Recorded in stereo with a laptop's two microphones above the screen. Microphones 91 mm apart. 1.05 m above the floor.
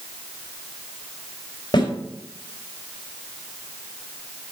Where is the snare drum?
55° left (ahead or behind), 4 m.